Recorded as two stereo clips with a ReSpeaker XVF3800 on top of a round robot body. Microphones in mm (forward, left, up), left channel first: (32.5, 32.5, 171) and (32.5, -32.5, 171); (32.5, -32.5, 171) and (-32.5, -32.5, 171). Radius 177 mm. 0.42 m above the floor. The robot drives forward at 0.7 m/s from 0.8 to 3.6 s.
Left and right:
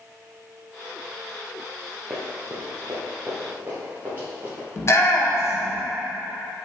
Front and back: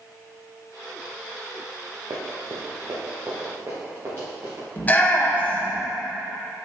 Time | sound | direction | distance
2.1 | running footsteps | 155° right | 1.1 m
4.8 | a shout | 60° left | 1.3 m